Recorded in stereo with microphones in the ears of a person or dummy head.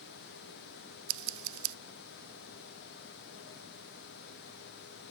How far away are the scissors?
About 0.5 m.